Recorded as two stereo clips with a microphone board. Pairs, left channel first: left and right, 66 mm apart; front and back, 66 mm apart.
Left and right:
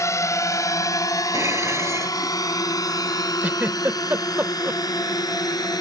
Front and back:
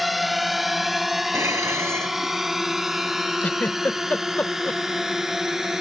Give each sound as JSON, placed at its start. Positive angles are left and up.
{"t": 0.0, "sound": "a drone", "azimuth_deg": 90}
{"t": 1.3, "sound": "dishes clattering", "azimuth_deg": -135}
{"t": 3.4, "sound": "a giggle", "azimuth_deg": -45}